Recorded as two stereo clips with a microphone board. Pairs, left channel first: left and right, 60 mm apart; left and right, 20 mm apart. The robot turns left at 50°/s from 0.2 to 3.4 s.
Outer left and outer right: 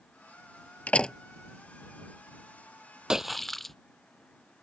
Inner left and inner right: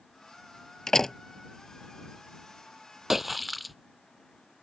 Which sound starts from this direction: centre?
A splash, at 3.1 s.